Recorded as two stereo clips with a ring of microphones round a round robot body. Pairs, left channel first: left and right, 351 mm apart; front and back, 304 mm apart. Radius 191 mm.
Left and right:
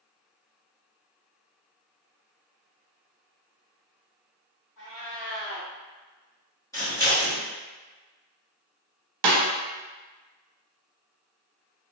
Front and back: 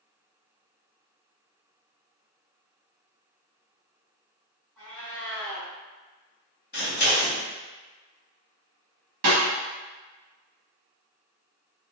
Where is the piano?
I don't hear a piano.